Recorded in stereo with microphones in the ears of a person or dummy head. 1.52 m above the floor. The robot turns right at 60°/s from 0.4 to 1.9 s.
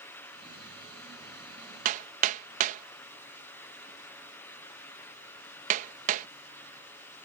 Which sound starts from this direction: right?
Hammering, at 1.9 s.